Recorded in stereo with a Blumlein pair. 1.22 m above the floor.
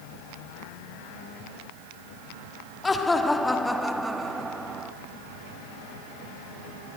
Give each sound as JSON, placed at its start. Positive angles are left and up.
{"t": 2.8, "sound": "laughter", "azimuth_deg": 10, "distance_m": 3.5}